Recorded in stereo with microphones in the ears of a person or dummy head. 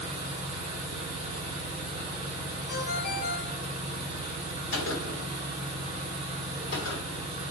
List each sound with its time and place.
0.0 s an engine running: 30° right (ahead or behind), 1.3 m
2.7 s a ringtone: 55° left (ahead or behind), 1.2 m
4.7 s a gunshot: 65° left (ahead or behind), 1.3 m